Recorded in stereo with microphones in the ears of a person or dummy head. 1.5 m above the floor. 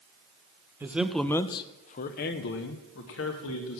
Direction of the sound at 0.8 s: 10° right (ahead or behind).